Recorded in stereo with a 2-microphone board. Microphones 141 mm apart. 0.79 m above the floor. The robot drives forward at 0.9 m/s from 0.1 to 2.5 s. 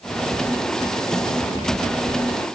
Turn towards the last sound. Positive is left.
No sound to turn to.